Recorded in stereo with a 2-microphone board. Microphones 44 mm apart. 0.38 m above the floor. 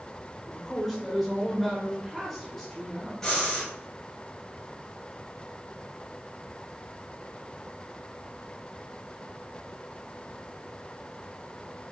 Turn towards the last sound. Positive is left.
turn(degrees=15)  # may be behind; listen again after turning